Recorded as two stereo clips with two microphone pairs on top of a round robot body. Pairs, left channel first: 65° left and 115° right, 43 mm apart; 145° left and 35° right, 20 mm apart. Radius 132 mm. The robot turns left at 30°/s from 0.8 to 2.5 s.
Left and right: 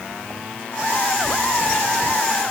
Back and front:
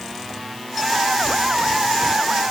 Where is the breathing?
I don't hear breathing.